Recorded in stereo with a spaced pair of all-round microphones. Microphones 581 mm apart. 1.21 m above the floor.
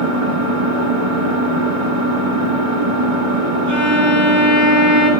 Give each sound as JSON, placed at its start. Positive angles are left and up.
{"t": 0.0, "sound": "an engine running", "side_deg": -65, "distance_m": 3.0}
{"t": 3.7, "sound": "a violin", "side_deg": -50, "distance_m": 8.5}